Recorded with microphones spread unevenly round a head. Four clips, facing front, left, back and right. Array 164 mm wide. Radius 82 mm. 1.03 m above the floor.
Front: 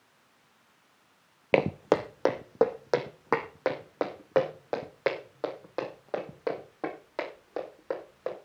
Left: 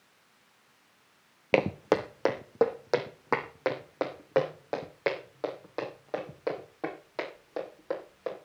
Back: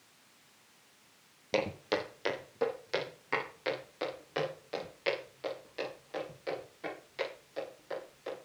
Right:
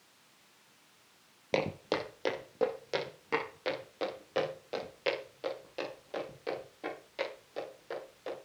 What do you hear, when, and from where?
1.5 s footsteps: 40° left, 1.3 m; by 8.3 s 30° left, 11 m